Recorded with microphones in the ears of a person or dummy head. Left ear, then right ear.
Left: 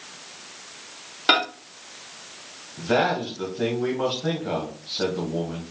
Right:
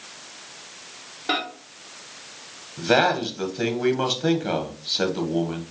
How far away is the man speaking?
About 1.3 m.